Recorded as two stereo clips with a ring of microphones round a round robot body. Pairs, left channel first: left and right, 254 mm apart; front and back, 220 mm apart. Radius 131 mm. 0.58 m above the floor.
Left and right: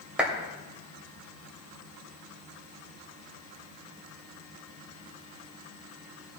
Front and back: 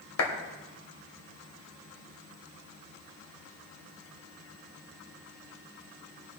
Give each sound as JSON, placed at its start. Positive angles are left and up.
{"t": 0.2, "sound": "a clap", "azimuth_deg": -5, "distance_m": 2.5}